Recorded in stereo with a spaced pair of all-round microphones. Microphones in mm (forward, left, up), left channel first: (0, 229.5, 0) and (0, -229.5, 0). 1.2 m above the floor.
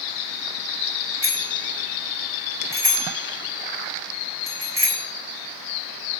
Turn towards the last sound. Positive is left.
turn(degrees=-50)  # may be behind; listen again after turning